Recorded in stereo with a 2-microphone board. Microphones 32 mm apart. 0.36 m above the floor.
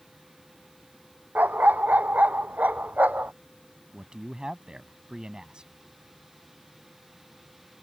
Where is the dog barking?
70° right (ahead or behind); by 3.3 s 60° right (ahead or behind).